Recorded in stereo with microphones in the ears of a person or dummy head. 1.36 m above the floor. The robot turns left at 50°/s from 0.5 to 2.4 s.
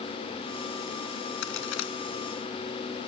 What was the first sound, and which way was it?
A crack, 50° left (ahead or behind).